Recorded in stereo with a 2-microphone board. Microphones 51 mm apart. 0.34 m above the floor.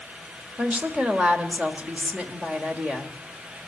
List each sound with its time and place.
0.6 s a woman speaking: 25° right (ahead or behind), 1.5 m